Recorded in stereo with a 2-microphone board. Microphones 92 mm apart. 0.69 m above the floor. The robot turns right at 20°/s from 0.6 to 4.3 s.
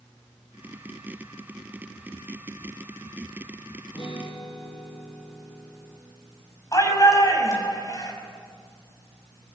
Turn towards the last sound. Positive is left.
turn(degrees=40)  # may be behind; listen again after turning